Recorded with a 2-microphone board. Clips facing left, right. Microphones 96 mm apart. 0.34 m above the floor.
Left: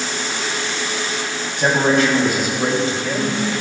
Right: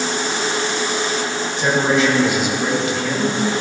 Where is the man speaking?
60° left (ahead or behind), 2.5 m; by 3.4 s 20° left (ahead or behind), 1.6 m.